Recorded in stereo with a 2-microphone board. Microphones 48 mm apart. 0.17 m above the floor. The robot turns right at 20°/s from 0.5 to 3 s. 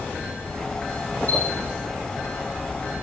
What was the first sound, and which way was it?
A chime, 45° left (ahead or behind).